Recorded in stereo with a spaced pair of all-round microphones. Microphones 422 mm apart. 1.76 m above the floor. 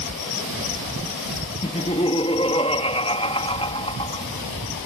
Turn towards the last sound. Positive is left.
turn(degrees=15)  # may be behind; listen again after turning